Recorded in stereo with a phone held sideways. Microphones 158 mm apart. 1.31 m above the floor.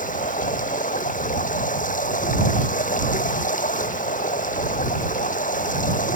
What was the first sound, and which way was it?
Running water, 55° left (ahead or behind).